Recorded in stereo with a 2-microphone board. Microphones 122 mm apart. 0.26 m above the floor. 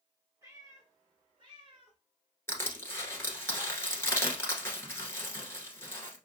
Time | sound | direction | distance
0.4 | a cat meowing | 25° right (ahead or behind) | 1.8 m
2.5 | crushing | 20° left (ahead or behind) | 1.2 m